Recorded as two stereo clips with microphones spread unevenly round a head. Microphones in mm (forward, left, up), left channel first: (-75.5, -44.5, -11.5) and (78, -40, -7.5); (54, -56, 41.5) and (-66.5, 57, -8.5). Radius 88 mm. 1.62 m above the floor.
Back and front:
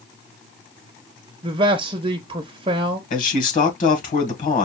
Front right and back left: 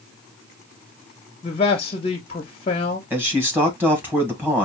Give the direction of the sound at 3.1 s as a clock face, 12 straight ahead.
5 o'clock.